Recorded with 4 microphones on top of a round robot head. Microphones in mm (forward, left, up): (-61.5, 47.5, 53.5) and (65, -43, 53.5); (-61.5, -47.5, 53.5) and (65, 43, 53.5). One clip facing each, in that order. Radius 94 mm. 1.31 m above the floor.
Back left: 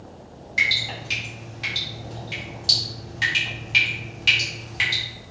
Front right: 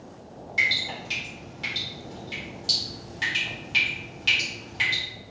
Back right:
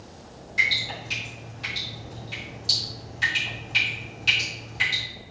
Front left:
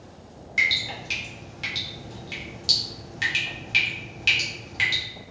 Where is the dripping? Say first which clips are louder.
Back left 2 dB, even; 65° left, 1.8 m.